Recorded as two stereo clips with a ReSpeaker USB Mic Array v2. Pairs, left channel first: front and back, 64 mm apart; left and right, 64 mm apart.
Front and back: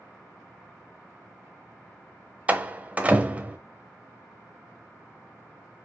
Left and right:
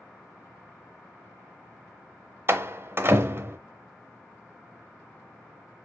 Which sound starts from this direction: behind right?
A door slam, at 2.5 s.